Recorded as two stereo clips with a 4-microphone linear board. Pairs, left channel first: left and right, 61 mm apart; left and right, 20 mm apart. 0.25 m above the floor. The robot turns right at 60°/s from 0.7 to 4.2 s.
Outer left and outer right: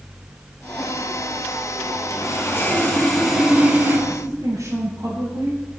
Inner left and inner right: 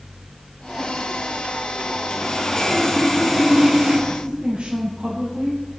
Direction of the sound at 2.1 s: 115° left.